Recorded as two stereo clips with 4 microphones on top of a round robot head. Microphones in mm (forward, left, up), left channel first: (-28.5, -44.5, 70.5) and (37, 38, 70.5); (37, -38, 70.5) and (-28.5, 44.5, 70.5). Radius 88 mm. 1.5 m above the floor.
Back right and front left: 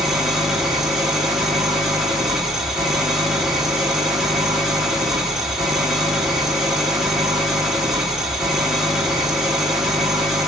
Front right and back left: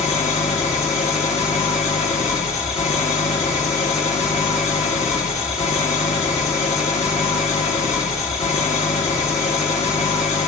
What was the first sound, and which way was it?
An engine running, 35° right.